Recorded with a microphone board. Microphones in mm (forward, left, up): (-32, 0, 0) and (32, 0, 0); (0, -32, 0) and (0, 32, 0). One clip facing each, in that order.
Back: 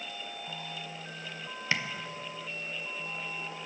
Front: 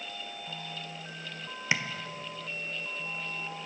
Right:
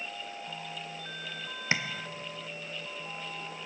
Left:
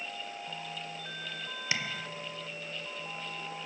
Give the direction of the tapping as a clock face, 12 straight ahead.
2 o'clock.